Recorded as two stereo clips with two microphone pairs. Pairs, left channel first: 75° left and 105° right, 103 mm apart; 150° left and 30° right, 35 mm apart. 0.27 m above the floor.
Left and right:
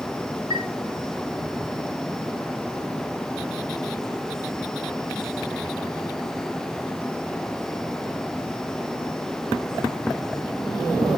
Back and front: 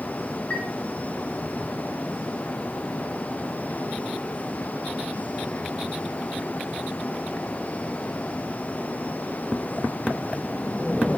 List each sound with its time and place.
0.5 s a chime: 150° right, 2 m